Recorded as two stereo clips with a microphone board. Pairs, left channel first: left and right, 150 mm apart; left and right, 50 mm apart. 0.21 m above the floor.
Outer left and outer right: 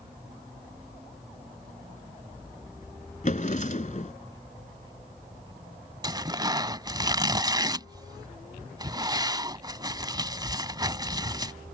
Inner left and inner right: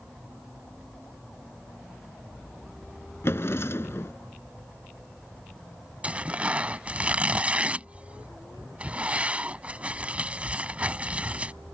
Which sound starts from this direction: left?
A drawer, at 3.2 s.